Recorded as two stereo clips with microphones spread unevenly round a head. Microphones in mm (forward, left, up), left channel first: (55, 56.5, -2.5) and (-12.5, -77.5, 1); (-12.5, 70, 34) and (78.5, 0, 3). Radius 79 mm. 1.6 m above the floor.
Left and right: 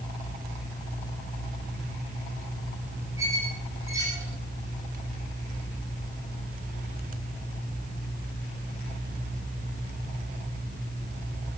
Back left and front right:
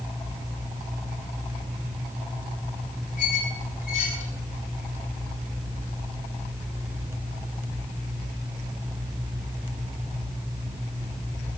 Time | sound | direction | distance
3.2 | a squeak | 170° left | 5.5 m